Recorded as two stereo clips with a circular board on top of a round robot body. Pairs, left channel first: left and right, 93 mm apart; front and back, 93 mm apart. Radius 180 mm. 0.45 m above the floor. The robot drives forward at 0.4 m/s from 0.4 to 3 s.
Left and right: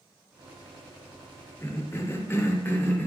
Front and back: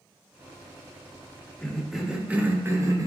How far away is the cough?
About 0.8 m.